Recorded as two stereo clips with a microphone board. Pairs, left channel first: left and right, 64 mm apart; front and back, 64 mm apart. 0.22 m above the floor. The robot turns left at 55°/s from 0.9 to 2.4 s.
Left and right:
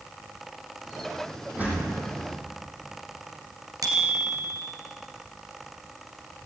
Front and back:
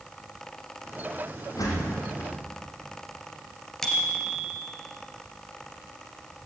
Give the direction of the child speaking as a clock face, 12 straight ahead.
I don't hear a child speaking.